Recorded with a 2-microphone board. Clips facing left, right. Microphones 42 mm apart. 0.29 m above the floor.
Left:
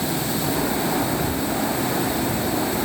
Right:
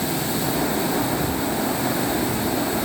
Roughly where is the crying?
No crying in this recording.